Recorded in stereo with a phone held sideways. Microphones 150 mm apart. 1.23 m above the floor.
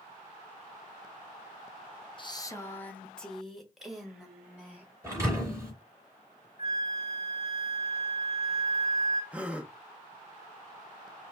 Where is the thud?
20° right (ahead or behind), 3 m.